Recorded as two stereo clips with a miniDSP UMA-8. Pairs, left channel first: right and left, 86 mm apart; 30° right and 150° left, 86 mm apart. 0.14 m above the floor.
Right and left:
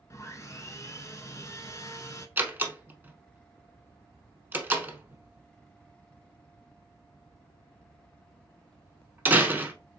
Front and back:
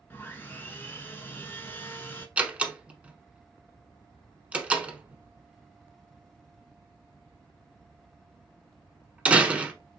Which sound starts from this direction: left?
A door slam, at 2.4 s.